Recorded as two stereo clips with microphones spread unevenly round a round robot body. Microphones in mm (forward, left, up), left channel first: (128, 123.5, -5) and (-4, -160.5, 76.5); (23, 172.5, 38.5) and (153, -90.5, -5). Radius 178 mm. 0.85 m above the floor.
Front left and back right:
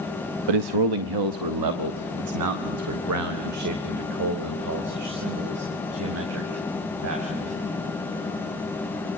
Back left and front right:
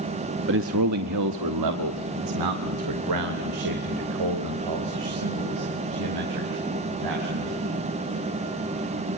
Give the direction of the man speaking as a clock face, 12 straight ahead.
4 o'clock.